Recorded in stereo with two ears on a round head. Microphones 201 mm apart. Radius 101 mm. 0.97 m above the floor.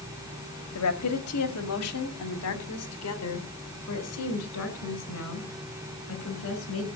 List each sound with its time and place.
0.8 s a woman speaking: 75° left (ahead or behind), 2 m